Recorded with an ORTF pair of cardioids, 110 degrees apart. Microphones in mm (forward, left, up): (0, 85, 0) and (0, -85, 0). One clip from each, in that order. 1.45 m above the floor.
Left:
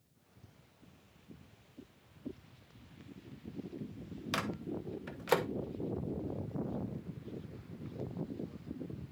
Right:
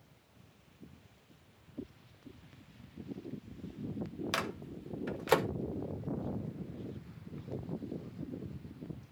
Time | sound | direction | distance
4.3 | a microwave | 10° right | 1.0 m